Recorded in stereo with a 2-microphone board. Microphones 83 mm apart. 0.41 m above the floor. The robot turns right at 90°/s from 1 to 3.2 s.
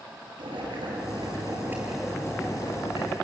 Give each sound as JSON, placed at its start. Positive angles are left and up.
{"t": 0.4, "sound": "boiling", "azimuth_deg": -90, "distance_m": 6.5}